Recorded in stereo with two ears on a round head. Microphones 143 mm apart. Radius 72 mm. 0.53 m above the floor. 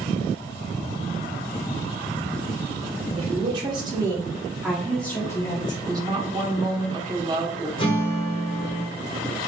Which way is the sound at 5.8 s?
25° right (ahead or behind).